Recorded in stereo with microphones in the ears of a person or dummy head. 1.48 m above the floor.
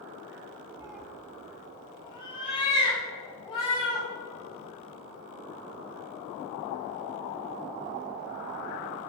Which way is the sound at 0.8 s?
10° right (ahead or behind).